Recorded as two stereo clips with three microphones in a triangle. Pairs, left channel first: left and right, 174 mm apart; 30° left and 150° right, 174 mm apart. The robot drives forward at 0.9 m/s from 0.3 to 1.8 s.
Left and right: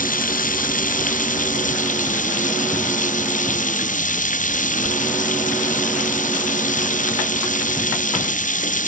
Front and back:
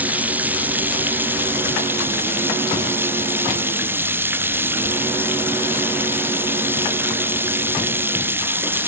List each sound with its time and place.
0.0 s running water: 130° left